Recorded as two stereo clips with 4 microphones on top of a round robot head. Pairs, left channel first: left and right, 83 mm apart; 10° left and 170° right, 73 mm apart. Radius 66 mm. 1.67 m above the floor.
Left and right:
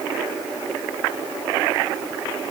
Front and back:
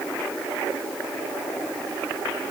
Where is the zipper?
I don't hear a zipper.